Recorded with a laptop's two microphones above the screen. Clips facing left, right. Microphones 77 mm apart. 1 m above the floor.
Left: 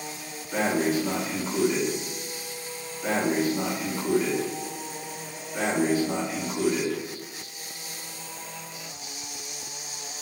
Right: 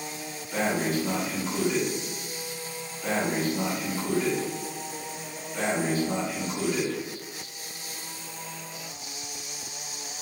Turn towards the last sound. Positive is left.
turn(degrees=15)  # may be behind; listen again after turning